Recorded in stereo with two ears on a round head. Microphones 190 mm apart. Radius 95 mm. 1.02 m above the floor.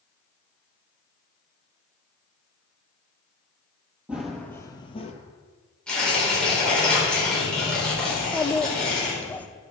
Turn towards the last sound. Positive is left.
turn(degrees=5)  # may be behind; listen again after turning